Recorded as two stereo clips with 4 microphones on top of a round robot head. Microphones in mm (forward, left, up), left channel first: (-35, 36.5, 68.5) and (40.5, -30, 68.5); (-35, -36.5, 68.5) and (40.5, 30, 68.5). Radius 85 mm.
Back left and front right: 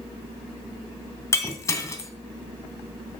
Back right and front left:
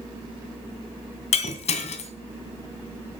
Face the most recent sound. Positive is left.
turn(degrees=-160)